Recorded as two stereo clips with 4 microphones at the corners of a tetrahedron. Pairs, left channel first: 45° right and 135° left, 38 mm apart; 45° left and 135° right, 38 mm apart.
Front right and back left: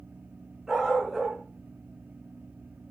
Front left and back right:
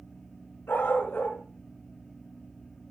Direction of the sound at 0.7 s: 60° left.